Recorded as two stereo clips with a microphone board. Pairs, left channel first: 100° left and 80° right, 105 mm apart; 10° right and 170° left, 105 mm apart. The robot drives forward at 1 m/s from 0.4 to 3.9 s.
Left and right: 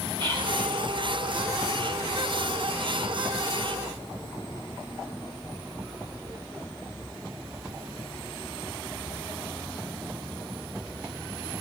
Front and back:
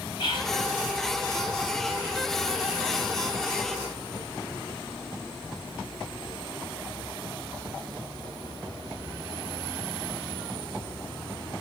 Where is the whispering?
45° right, 6 m.